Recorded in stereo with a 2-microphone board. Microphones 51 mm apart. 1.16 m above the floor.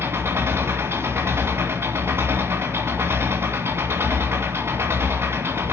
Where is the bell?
No bell in this recording.